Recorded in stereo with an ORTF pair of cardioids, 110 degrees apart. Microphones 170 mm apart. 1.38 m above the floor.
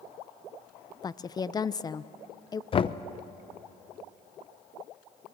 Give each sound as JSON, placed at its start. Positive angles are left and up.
{"t": 1.0, "sound": "a woman speaking", "azimuth_deg": 25, "distance_m": 0.6}
{"t": 2.7, "sound": "knocking", "azimuth_deg": 30, "distance_m": 0.7}